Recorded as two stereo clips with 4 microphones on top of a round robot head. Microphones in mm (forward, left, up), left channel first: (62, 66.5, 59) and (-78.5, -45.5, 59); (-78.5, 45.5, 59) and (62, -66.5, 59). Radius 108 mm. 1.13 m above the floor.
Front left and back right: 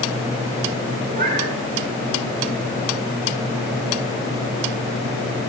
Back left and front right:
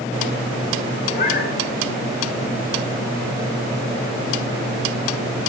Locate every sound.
1.1 s a cat meowing: 175° left, 8 m